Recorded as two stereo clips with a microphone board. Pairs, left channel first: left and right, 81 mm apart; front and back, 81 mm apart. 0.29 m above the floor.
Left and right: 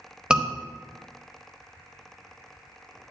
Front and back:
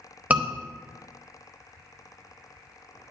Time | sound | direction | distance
0.3 | a scream | 150° right | 0.9 m